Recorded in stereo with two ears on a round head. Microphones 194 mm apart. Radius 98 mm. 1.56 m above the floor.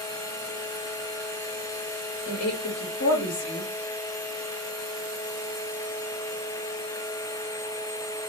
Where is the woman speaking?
75° left (ahead or behind), 0.9 m.